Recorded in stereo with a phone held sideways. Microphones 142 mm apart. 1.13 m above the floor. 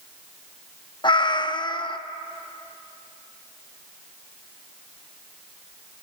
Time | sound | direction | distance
1.0 | a cat meowing | 35° left (ahead or behind) | 0.8 m